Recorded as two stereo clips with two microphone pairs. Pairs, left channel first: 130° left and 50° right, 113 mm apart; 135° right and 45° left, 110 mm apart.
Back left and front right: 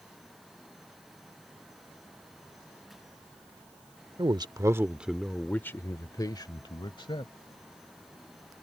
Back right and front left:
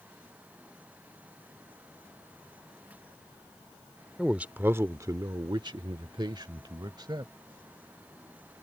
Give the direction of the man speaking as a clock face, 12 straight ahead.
1 o'clock.